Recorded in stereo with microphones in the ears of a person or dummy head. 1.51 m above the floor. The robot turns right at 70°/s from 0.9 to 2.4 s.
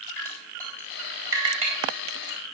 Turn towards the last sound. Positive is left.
turn(degrees=-80)